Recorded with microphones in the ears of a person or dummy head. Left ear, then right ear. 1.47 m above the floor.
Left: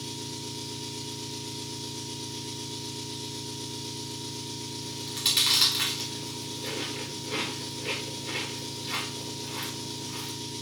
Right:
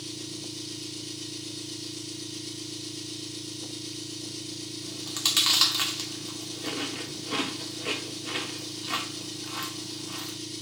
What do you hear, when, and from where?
0.0 s an engine running: 85° right, 3.5 m
4.8 s chewing: 50° right (ahead or behind), 1.4 m